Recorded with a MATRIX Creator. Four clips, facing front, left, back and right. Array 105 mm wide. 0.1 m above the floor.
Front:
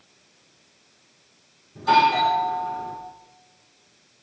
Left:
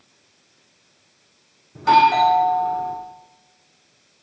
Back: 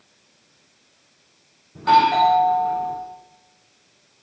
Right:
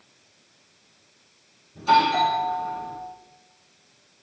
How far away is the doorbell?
About 7.5 m.